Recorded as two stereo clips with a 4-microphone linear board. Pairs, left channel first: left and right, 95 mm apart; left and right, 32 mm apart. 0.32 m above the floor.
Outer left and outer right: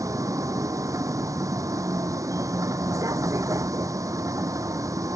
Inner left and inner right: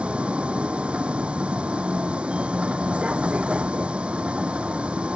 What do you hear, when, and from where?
0.0 s a vehicle: 35° right (ahead or behind)